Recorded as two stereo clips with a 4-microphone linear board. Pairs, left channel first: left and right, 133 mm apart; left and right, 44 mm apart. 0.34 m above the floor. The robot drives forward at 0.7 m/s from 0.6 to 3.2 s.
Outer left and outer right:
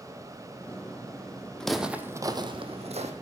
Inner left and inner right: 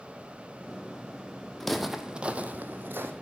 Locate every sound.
1.6 s footsteps: 5° left (ahead or behind), 0.9 m; by 3.1 s 65° right (ahead or behind), 1.1 m